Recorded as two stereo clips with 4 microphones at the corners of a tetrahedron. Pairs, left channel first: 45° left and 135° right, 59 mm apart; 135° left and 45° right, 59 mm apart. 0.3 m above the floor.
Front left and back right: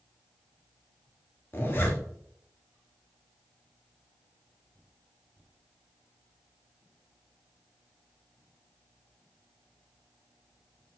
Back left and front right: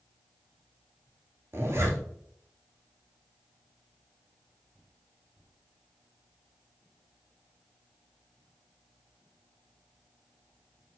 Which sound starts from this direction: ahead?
A zipper, at 1.5 s.